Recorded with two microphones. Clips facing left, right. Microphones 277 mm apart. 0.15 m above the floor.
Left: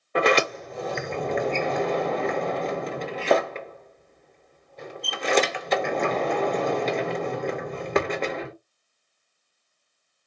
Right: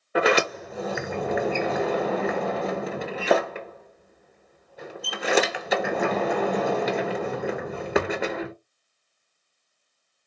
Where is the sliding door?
10° right (ahead or behind), 0.6 m.